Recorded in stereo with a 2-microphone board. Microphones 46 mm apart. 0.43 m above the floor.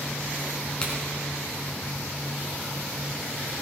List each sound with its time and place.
0.8 s a crack: 25° left (ahead or behind), 3 m